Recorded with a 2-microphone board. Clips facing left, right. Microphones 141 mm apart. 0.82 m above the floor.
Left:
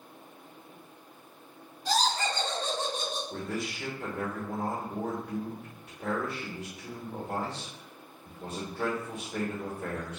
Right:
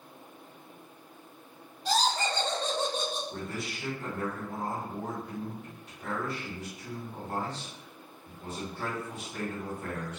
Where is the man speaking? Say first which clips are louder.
Left 2 dB; 60° left (ahead or behind), 1.0 m.